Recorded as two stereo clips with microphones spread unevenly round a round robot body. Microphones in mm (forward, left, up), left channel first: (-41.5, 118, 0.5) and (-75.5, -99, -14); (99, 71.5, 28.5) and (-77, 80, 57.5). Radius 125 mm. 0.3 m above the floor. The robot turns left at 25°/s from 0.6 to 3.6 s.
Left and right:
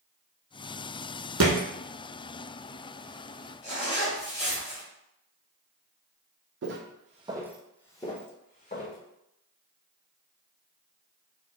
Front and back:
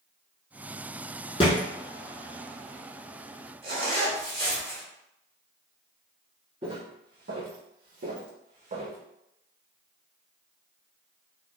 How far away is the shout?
No shout in this recording.